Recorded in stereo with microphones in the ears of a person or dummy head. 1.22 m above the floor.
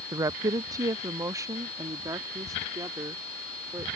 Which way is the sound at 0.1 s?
25° right (ahead or behind).